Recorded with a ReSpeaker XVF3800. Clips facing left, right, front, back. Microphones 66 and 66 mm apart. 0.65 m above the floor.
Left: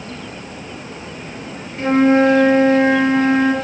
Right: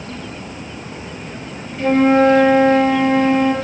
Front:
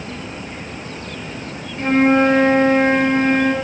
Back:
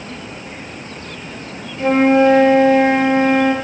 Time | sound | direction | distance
1.8 | a flute | 50° left | 4.5 m